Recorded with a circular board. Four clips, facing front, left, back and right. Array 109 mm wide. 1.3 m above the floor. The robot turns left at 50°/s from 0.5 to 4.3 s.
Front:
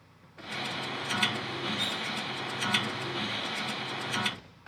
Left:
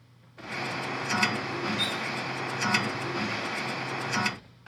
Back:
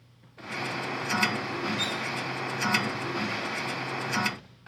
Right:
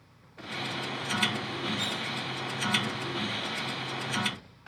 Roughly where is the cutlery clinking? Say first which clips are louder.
Left 2 dB, back 3 dB; behind left.